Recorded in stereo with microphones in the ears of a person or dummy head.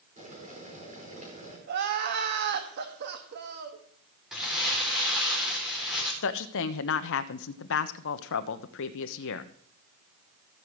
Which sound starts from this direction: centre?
Crumpling, at 4.3 s.